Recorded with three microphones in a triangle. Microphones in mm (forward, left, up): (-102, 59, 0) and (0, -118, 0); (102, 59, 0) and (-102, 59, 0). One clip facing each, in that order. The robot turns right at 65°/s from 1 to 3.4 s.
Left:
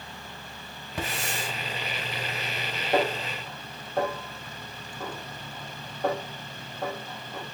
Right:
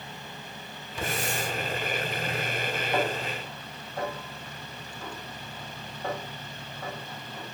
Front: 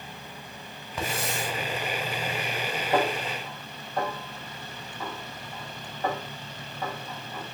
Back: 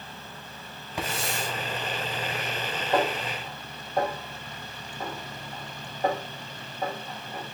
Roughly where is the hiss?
Left.